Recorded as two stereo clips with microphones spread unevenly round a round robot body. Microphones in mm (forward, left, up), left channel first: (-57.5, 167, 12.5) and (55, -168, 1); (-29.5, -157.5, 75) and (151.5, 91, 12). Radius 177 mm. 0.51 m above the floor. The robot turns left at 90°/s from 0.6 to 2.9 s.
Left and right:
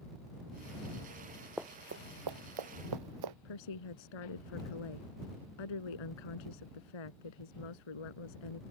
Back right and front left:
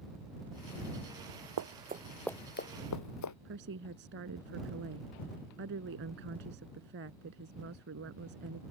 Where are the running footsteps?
20° left; by 3.4 s 95° right.